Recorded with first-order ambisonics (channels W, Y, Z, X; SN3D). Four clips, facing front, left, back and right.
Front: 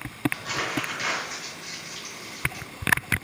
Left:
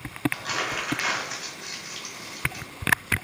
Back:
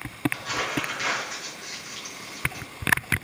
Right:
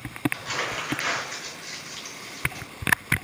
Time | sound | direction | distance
0.3 | crumpling | 90° left | 2 m